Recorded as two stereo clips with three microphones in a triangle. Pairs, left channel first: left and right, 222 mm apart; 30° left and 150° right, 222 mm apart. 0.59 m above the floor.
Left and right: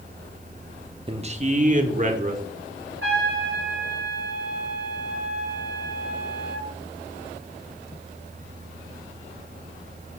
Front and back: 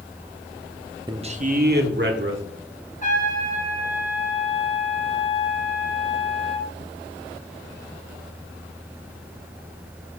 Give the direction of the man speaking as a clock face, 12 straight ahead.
4 o'clock.